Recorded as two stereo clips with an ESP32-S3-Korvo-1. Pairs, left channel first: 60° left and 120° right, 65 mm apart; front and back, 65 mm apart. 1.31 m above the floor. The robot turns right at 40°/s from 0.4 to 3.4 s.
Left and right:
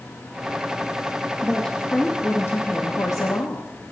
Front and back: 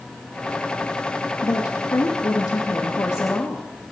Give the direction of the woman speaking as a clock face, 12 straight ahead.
1 o'clock.